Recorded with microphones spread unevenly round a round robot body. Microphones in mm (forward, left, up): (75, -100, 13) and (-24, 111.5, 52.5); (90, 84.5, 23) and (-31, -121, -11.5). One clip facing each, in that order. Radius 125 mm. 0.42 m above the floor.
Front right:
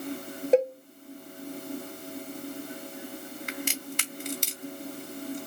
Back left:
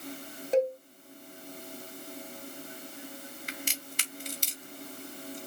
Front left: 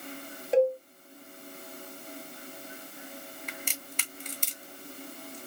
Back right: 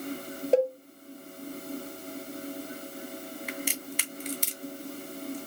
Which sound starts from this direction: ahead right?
A crack, at 3.5 s.